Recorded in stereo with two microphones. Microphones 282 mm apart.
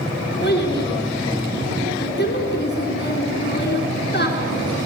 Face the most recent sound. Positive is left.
turn(degrees=35)  # may be behind; listen again after turning